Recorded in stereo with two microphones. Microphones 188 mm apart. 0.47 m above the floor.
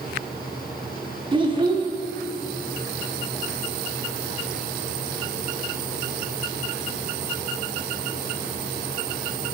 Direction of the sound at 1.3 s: 30° right (ahead or behind).